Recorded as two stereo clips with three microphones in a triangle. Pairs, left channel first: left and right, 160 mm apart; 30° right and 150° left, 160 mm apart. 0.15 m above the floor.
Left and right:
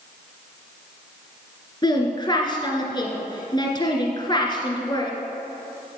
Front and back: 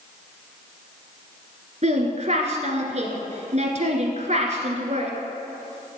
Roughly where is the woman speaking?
Behind left.